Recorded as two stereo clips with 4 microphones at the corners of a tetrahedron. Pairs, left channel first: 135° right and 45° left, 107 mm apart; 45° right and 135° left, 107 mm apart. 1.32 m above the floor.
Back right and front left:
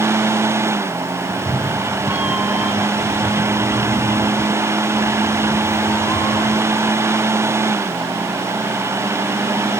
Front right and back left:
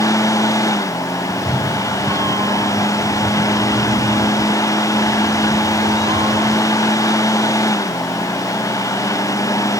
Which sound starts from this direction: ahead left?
A cat meowing, at 1.3 s.